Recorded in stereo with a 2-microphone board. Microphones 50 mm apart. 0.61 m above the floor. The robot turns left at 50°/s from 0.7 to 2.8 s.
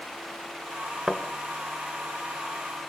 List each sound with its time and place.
1.1 s a thud: 10° right (ahead or behind), 1.9 m; by 1.2 s 15° right (ahead or behind), 1.9 m